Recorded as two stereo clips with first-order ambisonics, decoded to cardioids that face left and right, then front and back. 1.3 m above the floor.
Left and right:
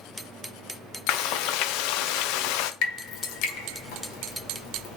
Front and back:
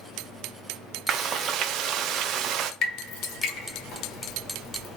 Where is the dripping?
60° left, 1.4 m.